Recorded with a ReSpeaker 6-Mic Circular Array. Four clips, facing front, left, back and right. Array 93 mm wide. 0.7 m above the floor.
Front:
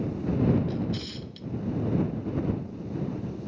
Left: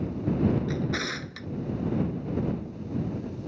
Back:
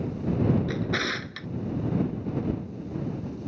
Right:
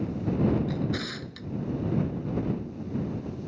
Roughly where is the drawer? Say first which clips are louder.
Left 1 dB, back 3 dB; behind.